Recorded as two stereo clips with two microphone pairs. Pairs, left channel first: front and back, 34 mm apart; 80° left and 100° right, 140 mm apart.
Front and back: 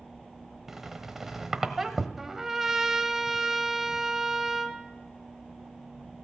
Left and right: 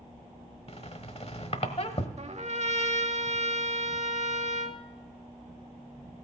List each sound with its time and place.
0.7 s a squeak: 105° left, 1.1 m
2.2 s a trumpet: 105° right, 0.9 m